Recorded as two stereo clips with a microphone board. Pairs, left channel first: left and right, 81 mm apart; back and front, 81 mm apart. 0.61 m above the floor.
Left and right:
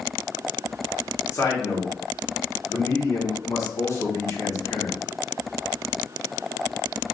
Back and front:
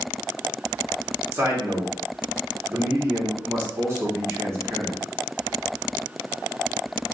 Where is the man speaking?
45° left, 1.3 m.